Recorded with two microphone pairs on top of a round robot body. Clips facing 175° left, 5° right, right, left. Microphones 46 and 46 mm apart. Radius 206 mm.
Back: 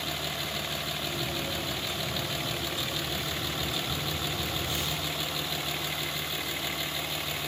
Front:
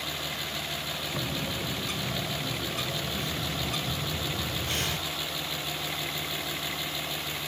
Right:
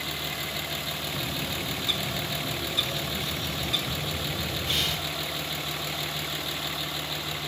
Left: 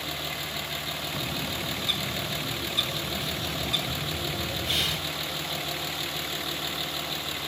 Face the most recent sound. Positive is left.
turn(degrees=0)